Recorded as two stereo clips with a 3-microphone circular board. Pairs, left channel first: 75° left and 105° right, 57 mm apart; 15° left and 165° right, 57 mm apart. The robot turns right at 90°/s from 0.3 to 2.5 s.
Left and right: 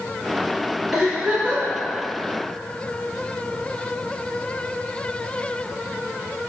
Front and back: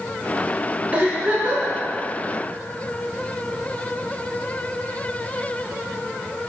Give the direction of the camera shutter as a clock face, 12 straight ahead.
No camera shutter in this recording.